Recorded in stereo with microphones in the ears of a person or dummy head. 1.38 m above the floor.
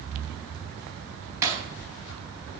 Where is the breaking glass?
15° right (ahead or behind), 5 m.